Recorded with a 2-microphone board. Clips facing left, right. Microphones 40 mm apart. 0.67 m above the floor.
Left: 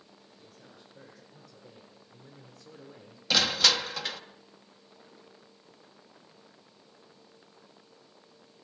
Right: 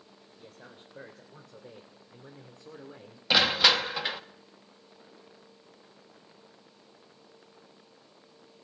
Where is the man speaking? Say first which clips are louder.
Right 5 dB; 50° right (ahead or behind), 3 m; by 3.2 s 15° right (ahead or behind), 2 m.